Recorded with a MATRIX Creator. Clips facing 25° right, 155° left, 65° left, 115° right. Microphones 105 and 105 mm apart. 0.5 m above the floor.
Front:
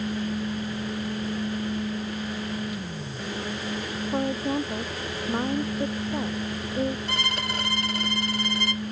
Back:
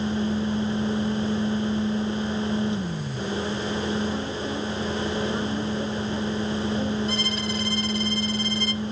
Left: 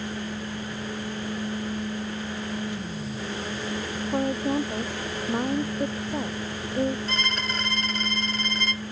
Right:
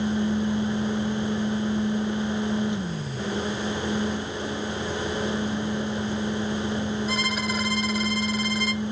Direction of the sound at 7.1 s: 30° right.